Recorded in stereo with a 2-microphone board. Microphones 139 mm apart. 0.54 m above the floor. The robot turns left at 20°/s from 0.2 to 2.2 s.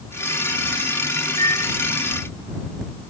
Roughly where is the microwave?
Left.